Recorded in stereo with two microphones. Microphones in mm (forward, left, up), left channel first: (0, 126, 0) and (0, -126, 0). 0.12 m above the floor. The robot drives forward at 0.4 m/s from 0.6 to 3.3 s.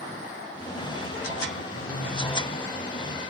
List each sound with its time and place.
1.7 s a phone buzzing: 45° right (ahead or behind), 4 m; by 2.4 s 40° right (ahead or behind), 4.5 m